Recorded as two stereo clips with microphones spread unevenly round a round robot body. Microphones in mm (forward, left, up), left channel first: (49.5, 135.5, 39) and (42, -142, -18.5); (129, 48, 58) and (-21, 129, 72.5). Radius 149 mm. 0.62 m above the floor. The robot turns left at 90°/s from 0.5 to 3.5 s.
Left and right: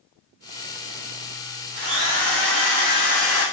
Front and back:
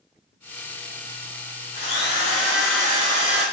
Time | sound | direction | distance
1.7 | a drill | 35° right | 5 m